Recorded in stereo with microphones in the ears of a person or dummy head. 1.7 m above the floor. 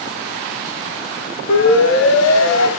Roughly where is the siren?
Left.